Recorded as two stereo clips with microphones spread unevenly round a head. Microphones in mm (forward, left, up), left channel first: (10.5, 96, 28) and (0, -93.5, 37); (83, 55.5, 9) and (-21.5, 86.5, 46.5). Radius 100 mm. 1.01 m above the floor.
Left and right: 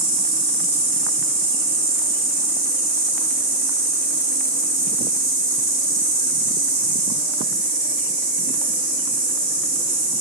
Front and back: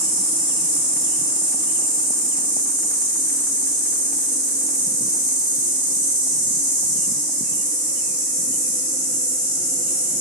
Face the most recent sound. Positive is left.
turn(degrees=-30)